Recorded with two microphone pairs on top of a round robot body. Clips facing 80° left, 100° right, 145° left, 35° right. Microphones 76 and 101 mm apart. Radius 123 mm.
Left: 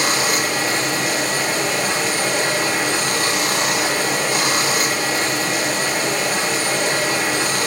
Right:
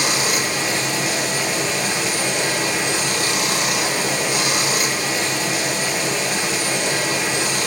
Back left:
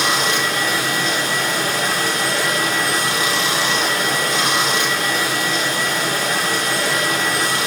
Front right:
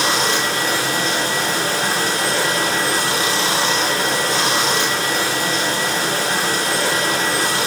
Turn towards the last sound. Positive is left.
turn(degrees=25)